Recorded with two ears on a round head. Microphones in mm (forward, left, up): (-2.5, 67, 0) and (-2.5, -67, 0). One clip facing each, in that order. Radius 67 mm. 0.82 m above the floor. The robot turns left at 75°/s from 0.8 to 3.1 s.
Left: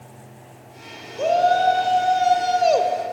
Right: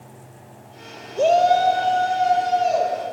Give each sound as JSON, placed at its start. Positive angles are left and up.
{"t": 1.2, "sound": "a shout", "azimuth_deg": -135, "distance_m": 2.5}